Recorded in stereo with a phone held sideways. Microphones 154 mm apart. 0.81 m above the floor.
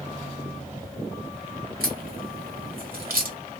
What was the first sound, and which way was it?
A crack, 70° right (ahead or behind).